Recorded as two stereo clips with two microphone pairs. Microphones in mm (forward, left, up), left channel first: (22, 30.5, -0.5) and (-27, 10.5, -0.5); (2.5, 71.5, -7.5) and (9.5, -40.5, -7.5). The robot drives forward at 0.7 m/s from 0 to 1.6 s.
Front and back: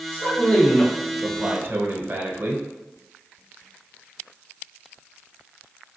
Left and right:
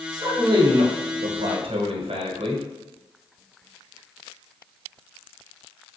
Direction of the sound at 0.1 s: 30° right.